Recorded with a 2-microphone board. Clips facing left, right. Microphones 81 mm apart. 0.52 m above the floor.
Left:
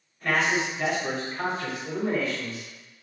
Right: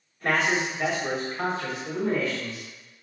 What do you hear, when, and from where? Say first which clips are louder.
0.2 s a man speaking: even; 40° right (ahead or behind), 0.9 m; by 2.6 s 25° left (ahead or behind), 1.4 m